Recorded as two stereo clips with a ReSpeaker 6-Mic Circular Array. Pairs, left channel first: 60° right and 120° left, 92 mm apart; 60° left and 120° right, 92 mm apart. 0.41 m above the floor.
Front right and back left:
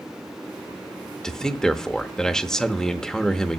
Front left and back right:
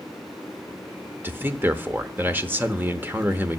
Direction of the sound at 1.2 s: 130° right.